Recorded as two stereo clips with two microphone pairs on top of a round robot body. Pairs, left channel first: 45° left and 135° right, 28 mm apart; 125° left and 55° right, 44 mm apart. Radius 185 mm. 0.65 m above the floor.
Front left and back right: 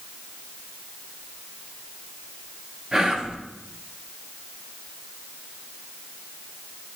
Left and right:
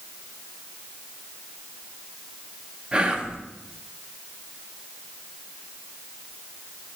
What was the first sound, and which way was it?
Whispering, 140° right.